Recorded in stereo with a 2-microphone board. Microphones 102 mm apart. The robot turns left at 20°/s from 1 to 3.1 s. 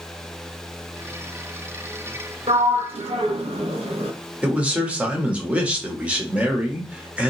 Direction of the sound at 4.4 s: 10° right (ahead or behind).